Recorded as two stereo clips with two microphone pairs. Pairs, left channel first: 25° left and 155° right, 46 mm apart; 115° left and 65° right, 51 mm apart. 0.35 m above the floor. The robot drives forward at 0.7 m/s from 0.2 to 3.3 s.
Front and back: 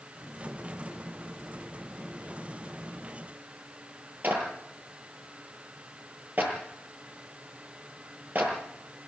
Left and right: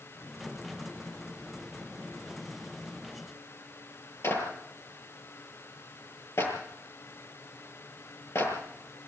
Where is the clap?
150° left, 8 m.